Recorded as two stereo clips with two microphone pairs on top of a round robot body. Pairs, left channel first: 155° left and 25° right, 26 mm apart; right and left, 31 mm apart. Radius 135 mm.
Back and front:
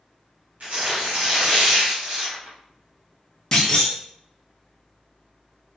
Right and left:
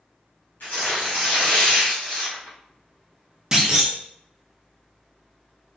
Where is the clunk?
95° left, 1.0 m.